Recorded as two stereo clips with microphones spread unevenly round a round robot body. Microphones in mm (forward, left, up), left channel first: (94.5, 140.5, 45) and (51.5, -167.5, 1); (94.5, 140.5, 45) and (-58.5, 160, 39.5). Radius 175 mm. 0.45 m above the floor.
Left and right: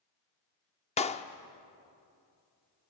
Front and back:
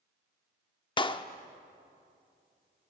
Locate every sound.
1.0 s a clap: 15° left, 0.8 m